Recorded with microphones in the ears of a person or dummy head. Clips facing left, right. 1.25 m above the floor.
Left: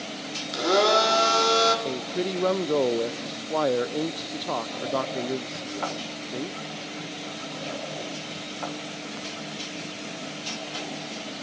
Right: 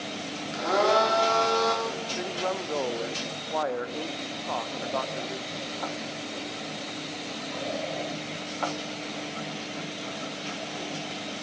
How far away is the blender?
About 4 m.